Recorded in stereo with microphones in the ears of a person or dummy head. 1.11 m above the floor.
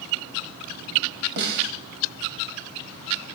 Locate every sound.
1.4 s a snare drum: 60° right (ahead or behind), 1.7 m